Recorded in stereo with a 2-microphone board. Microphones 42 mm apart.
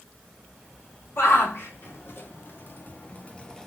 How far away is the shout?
About 3.5 m.